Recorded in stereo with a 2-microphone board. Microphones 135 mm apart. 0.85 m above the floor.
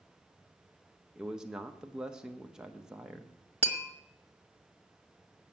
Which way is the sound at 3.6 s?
55° right (ahead or behind).